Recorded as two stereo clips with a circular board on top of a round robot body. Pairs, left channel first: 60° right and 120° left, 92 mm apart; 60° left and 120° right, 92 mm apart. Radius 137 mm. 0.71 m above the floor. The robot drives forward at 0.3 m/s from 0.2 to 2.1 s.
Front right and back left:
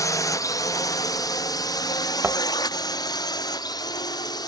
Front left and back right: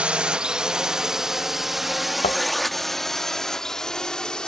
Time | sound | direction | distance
0.0 | a drone | 50° right | ?
2.2 | a thud | 40° left | ?